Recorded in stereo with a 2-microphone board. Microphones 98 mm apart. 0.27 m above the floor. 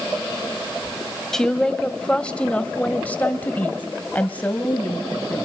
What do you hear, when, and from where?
1.3 s a woman speaking: 5° left (ahead or behind), 1.3 m; by 5.5 s 15° left (ahead or behind), 1.8 m